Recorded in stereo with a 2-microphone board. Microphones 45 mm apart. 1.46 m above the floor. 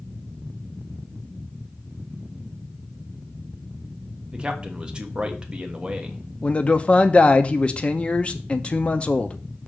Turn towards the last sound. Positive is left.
turn(degrees=30)  # may be behind; listen again after turning